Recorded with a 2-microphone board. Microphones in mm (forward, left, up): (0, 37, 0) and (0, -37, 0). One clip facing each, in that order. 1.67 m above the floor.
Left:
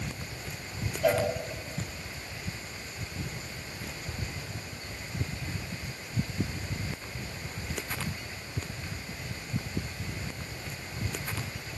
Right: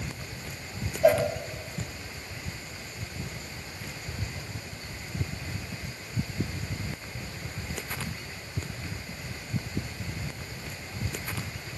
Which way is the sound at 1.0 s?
15° right (ahead or behind).